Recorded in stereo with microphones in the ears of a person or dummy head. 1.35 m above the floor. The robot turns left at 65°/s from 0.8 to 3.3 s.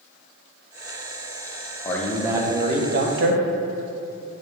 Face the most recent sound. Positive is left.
turn(degrees=-75)